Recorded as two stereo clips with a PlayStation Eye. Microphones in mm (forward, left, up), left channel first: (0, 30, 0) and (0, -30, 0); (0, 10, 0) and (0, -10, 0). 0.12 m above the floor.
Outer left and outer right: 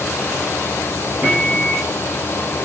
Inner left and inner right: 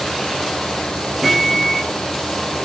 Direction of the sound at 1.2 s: 20° right (ahead or behind).